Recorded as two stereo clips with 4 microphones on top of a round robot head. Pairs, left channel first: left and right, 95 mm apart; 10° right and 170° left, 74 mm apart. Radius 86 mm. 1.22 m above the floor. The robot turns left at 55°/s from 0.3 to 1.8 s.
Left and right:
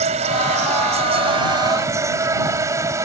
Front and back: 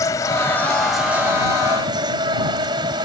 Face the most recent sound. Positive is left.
turn(degrees=-150)